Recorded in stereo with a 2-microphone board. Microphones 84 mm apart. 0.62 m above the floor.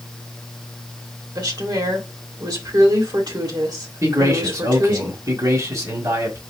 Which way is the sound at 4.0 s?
45° right (ahead or behind).